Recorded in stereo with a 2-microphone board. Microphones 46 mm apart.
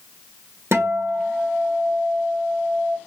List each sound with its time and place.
0.7 s a guitar: 75° right (ahead or behind), 1.2 m